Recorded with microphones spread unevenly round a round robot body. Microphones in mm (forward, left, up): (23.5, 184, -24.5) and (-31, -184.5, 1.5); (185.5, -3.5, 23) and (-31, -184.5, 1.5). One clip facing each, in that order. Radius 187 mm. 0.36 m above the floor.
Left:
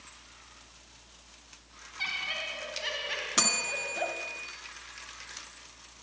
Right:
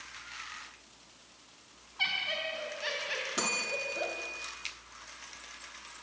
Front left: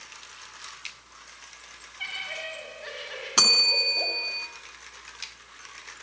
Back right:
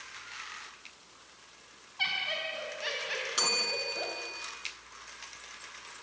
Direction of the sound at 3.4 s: 20° left.